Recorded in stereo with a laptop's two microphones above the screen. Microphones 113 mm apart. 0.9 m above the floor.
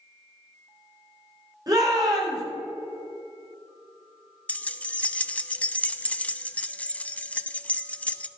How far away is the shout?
About 3 m.